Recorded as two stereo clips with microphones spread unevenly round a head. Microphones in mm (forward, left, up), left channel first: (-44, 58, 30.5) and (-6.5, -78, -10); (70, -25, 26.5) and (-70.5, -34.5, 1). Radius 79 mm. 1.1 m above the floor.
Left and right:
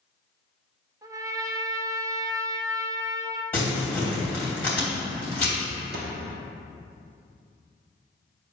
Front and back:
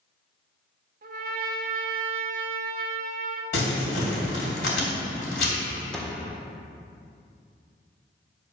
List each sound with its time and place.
1.0 s a trumpet: 150° right, 1.1 m
3.5 s crumpling: 30° left, 3 m
5.9 s a snare drum: 75° right, 1.8 m